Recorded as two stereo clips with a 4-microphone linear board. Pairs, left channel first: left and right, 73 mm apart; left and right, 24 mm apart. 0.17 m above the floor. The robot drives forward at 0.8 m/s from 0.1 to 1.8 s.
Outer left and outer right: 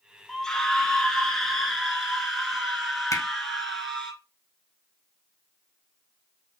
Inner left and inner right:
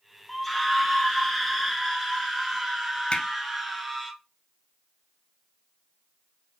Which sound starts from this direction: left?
Hammering, at 3.1 s.